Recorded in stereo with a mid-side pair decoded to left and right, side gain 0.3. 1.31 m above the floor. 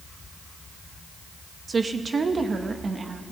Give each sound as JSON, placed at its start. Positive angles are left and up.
{"t": 1.7, "sound": "a woman speaking", "azimuth_deg": -50, "distance_m": 1.9}